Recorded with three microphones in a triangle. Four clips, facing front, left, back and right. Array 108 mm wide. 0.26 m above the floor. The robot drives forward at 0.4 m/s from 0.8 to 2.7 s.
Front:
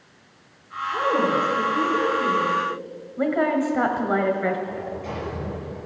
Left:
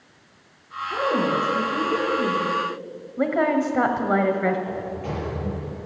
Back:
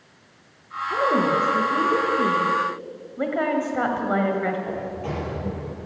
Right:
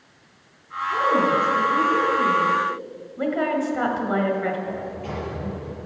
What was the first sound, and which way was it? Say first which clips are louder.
A woman speaking: right 3 dB, back 1 dB; 175° left.